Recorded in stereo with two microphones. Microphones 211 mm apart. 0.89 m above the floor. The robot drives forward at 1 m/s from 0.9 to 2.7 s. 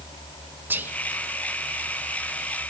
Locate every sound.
0.7 s whispering: 10° right (ahead or behind), 0.6 m